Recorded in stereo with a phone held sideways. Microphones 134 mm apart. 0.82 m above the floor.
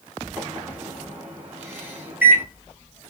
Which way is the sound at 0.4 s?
15° right (ahead or behind).